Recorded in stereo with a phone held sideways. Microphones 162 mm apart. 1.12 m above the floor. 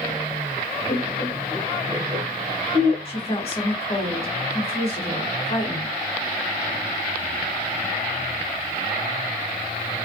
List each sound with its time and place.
0.9 s laughter: 55° left (ahead or behind), 0.9 m; by 3.0 s 70° right (ahead or behind), 1.3 m
3.0 s a woman speaking: 40° left (ahead or behind), 1.6 m